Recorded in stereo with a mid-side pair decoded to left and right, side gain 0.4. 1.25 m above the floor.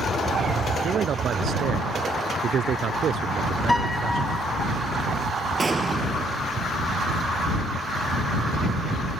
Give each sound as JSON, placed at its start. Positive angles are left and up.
{"t": 0.8, "sound": "a man speaking", "azimuth_deg": -65}
{"t": 3.7, "sound": "a piano", "azimuth_deg": 10}
{"t": 5.6, "sound": "an explosion", "azimuth_deg": -35}